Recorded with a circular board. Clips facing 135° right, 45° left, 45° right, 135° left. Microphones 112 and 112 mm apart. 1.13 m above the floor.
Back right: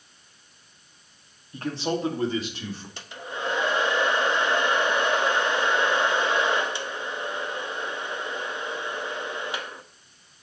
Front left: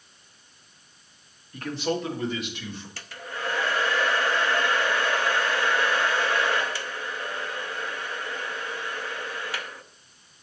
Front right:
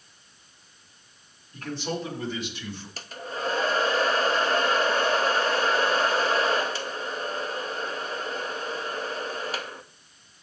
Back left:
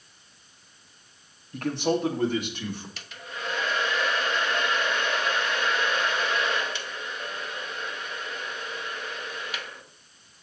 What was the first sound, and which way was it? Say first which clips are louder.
A man speaking: even, back left 6 dB; 165° left.